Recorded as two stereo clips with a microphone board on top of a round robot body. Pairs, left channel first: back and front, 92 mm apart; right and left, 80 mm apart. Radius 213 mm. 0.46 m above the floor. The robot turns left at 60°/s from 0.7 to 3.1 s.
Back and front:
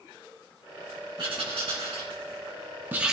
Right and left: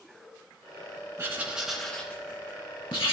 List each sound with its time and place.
1.2 s writing: 35° left, 2.5 m; by 3.1 s 80° right, 2.5 m